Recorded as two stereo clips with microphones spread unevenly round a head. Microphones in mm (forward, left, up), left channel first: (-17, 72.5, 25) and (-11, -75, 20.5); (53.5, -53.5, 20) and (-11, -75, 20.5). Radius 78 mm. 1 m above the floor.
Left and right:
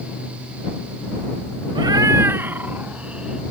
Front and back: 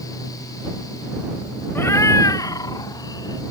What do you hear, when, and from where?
1.8 s a cat meowing: 30° right; by 3.4 s straight ahead